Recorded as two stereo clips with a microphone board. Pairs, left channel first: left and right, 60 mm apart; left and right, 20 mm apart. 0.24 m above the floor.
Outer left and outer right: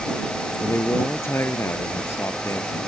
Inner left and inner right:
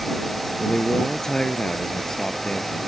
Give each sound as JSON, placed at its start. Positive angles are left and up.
{"t": 0.6, "sound": "a man speaking", "side_deg": 40}